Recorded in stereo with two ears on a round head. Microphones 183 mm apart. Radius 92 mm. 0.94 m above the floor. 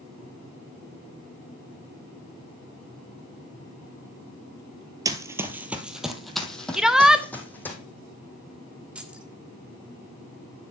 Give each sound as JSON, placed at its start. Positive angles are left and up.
{"t": 5.0, "sound": "running footsteps", "side_deg": -20, "distance_m": 1.0}
{"t": 6.7, "sound": "a shout", "side_deg": -5, "distance_m": 0.8}
{"t": 8.9, "sound": "keys jangling", "side_deg": -5, "distance_m": 1.2}